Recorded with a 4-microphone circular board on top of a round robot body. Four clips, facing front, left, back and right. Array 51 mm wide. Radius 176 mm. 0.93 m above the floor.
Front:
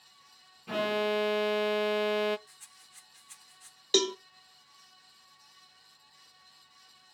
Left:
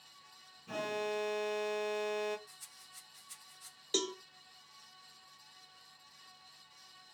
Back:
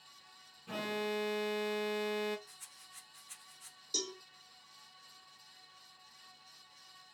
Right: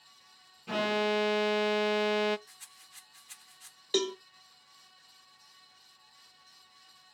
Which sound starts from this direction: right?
A rattle, at 2.5 s.